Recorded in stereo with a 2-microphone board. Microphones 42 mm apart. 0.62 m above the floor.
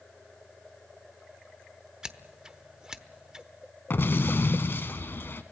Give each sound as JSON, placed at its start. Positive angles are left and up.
{"t": 2.0, "sound": "scissors", "side_deg": -20, "distance_m": 1.0}
{"t": 3.9, "sound": "an explosion", "side_deg": 60, "distance_m": 1.4}